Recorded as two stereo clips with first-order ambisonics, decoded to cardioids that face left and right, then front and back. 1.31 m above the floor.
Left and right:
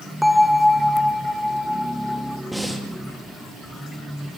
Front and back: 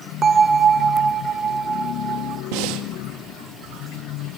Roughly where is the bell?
Behind.